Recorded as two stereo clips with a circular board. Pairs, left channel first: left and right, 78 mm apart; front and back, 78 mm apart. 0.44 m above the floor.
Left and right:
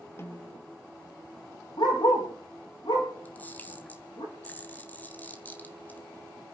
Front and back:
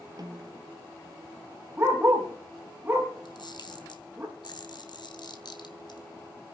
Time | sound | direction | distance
0.2 | a snare drum | 145° left | 2.5 m
1.8 | a dog barking | 115° left | 6 m
3.2 | a camera shutter | 20° left | 2.5 m